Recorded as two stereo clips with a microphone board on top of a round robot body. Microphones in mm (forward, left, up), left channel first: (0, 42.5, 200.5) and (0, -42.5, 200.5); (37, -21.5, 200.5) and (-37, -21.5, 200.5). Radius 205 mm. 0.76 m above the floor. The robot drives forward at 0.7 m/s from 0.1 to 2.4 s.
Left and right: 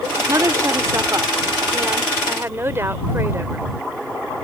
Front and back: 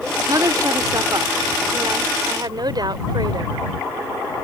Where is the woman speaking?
140° right; by 3.7 s 150° right.